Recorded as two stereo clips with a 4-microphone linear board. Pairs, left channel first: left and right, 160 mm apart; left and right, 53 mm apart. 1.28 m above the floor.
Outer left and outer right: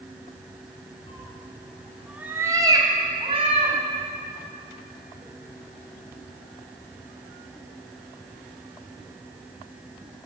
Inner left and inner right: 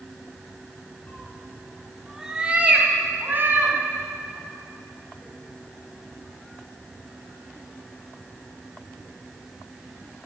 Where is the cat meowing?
35° left (ahead or behind), 1.6 m; by 3.8 s 45° right (ahead or behind), 3 m.